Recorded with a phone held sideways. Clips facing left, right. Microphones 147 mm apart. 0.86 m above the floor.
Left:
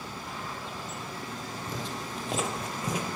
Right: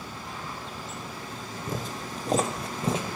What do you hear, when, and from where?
1.7 s footsteps: 45° right (ahead or behind), 1.2 m; by 3.0 s 25° right (ahead or behind), 1.1 m